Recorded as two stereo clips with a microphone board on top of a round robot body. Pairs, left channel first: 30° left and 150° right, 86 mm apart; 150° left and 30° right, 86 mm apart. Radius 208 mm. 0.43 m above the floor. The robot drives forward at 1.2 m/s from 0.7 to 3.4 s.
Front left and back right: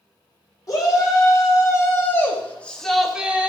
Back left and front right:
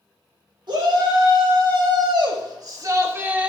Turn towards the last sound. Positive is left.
turn(degrees=-95)